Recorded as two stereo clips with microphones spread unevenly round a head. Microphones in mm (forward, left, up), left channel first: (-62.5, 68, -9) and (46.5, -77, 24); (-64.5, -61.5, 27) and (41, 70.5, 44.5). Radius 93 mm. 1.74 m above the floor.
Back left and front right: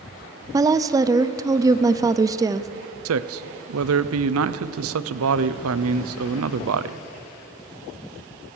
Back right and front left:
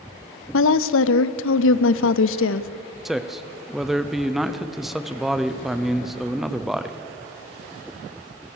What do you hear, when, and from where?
0.5 s a woman speaking: 125° right, 0.7 m
3.0 s a man speaking: 40° right, 0.8 m